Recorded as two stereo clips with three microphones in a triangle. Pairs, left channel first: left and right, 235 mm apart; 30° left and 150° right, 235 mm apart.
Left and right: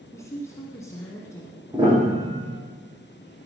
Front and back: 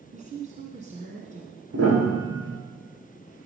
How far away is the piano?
About 6.5 m.